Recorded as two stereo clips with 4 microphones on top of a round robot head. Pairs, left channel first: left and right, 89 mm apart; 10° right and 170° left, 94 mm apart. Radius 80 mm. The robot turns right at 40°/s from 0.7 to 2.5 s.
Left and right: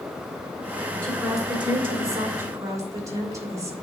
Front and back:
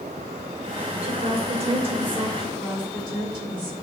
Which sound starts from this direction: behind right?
A woman speaking, at 2.4 s.